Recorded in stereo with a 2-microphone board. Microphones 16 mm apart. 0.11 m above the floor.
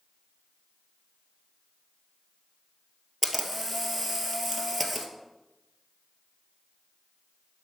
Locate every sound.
3.2 s a camera shutter: 10° left (ahead or behind), 1.3 m